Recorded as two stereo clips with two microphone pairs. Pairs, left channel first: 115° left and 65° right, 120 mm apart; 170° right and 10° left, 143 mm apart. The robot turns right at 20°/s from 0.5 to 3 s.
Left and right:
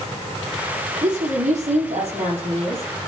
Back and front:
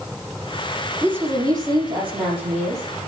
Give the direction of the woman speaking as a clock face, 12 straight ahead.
2 o'clock.